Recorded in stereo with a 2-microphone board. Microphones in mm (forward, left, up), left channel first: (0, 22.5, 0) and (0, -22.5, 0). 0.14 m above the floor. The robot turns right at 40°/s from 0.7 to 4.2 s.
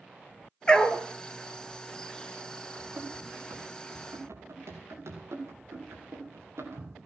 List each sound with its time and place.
0.7 s a dog barking: 20° left (ahead or behind), 0.8 m; by 1.0 s 30° left (ahead or behind), 0.8 m
2.8 s running footsteps: 30° right (ahead or behind), 6.5 m; by 7.0 s 80° right, 4.5 m